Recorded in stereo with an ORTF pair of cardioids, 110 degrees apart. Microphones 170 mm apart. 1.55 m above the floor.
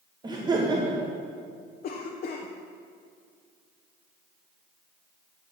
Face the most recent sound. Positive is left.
turn(degrees=55)